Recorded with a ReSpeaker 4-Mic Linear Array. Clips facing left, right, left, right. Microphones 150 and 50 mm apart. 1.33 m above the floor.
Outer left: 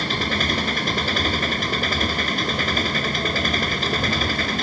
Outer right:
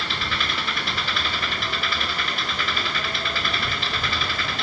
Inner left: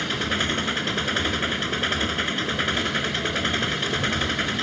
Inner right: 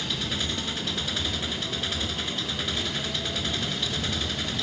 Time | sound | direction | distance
0.0 | an engine running | 45° left (ahead or behind) | ?